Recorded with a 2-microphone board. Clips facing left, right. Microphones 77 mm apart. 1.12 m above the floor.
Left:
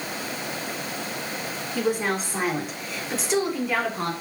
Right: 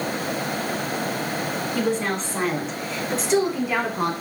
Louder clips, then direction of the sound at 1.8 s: Left 1 dB; 15° left (ahead or behind).